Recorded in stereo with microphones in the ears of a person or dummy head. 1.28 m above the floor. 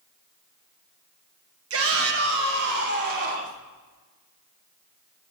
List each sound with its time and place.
1.7 s a shout: 75° right (ahead or behind), 1.5 m; by 3.6 s 55° right (ahead or behind), 2.5 m